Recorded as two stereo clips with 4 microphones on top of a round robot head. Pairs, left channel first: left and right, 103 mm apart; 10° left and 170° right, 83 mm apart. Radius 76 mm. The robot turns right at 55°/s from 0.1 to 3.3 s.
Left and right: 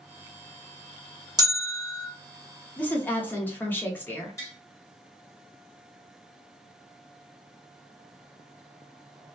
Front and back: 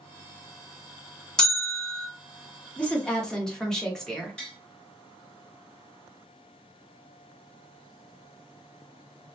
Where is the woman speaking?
45° left, 0.8 m; by 4.4 s 75° left, 0.8 m.